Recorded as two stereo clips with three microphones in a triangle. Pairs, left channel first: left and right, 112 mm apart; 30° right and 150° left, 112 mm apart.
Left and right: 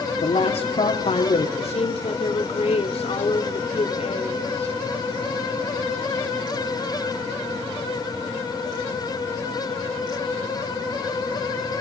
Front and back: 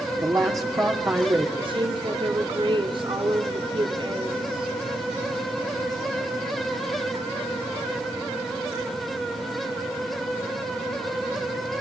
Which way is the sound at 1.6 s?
110° left.